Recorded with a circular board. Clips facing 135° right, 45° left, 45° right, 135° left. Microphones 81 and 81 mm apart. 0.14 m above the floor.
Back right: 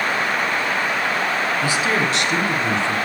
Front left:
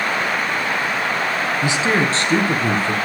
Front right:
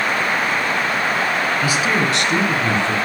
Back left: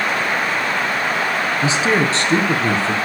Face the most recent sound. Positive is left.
turn(degrees=85)